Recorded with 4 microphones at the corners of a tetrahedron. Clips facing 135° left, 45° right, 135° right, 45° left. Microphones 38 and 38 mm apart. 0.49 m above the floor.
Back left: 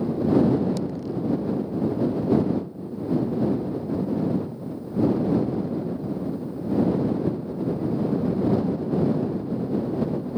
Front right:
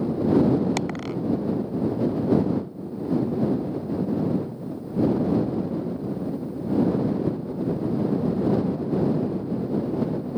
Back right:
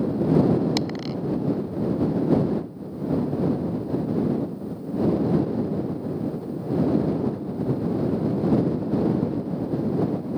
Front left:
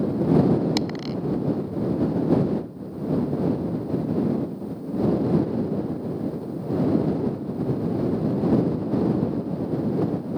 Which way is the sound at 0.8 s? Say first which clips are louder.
Front right 1 dB, even; 45° right.